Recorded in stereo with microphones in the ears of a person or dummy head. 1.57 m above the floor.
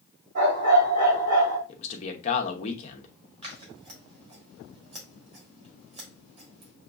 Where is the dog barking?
55° right (ahead or behind), 3 m.